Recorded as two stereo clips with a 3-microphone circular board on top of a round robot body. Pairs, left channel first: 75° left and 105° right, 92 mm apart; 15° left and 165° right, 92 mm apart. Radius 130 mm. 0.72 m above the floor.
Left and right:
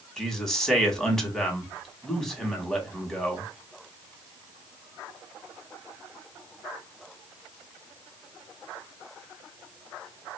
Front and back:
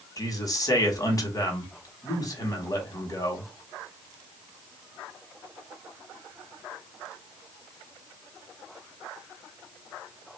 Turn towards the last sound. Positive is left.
turn(degrees=-5)